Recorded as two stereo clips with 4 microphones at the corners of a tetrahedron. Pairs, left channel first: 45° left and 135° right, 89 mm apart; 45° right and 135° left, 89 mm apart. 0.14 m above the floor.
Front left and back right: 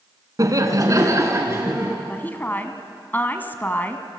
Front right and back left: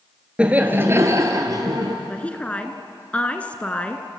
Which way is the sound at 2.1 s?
10° left.